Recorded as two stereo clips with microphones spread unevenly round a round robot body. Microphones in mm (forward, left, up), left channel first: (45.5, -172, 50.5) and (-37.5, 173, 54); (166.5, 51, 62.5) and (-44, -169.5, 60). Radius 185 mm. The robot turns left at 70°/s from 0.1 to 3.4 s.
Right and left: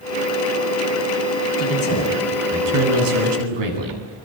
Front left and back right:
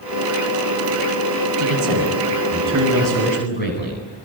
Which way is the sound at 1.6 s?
120° right.